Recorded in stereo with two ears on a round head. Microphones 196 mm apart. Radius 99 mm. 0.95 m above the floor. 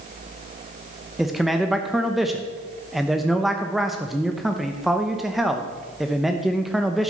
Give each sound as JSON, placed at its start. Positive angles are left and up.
{"t": 1.2, "sound": "a man speaking", "side_deg": 0, "distance_m": 0.8}